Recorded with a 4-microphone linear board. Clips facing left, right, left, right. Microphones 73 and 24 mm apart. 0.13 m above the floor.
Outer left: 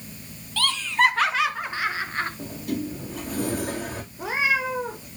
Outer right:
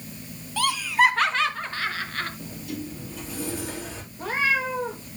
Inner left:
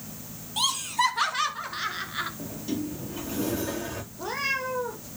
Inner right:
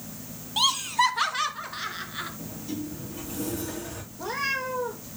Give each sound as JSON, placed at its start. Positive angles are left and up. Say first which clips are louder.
{"t": 0.6, "sound": "laughter", "louder": "outer right 1 dB, inner right 2 dB", "side_deg": -15, "distance_m": 1.0}
{"t": 2.4, "sound": "a sliding door", "louder": "outer left 5 dB, inner left 3 dB", "side_deg": 60, "distance_m": 3.0}
{"t": 4.1, "sound": "a cat meowing", "louder": "even, inner right 1 dB", "side_deg": 10, "distance_m": 2.5}